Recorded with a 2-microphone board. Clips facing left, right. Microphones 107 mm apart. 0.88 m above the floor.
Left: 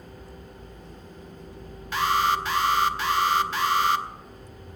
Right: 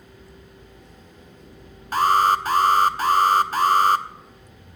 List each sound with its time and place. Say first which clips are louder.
1.9 s an alarm: right 5 dB; 45° right (ahead or behind), 0.6 m